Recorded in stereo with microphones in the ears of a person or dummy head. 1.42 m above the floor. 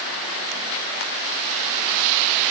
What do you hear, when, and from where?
Only background noise.